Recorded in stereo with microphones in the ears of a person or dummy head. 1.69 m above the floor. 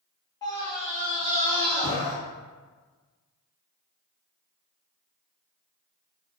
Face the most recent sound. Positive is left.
turn(degrees=25)  # may be behind; listen again after turning